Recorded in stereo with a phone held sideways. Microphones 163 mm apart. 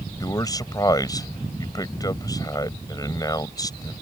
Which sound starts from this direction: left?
A man speaking, at 0.2 s.